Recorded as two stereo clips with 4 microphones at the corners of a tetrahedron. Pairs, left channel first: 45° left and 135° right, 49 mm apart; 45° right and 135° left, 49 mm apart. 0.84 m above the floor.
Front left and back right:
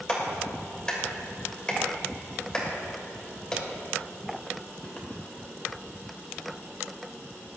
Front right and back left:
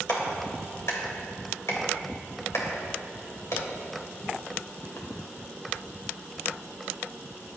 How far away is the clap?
About 3 m.